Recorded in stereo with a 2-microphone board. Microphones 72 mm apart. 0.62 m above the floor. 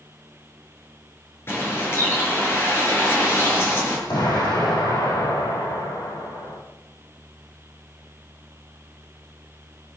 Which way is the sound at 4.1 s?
80° left.